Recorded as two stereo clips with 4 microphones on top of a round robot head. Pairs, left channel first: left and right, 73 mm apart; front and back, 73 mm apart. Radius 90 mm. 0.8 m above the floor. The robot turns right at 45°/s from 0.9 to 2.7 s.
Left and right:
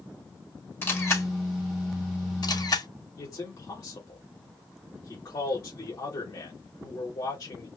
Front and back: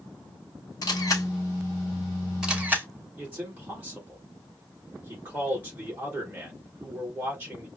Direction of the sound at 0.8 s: 30° left.